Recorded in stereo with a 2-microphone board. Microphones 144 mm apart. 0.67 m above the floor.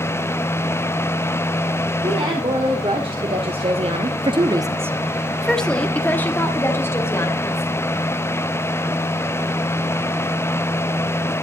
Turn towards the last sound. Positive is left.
turn(degrees=20)  # may be behind; listen again after turning